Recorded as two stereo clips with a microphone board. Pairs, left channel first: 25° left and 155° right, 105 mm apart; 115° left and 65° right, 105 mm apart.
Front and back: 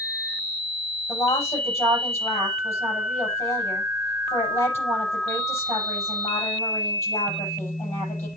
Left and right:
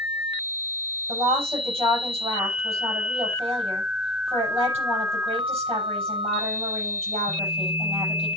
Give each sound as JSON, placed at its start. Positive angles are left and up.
{"t": 1.1, "sound": "a woman speaking", "azimuth_deg": -40, "distance_m": 7.0}